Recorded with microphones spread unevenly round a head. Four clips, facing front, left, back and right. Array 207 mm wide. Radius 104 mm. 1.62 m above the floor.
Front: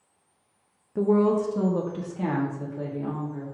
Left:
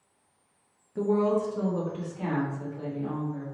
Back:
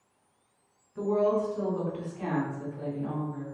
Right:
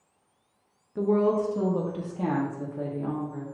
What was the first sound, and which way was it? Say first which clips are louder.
A woman speaking: right 2 dB, front 4 dB; straight ahead.